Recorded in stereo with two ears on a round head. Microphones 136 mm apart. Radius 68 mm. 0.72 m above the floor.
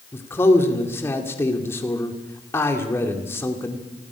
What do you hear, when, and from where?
0.1 s a man speaking: 15° left (ahead or behind), 2.5 m